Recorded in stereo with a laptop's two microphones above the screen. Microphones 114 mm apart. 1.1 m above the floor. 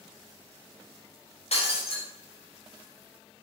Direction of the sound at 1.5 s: 60° left (ahead or behind).